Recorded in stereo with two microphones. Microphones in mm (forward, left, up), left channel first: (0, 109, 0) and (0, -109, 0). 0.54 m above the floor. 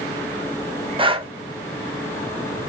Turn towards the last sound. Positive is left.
turn(degrees=-20)  # may be behind; listen again after turning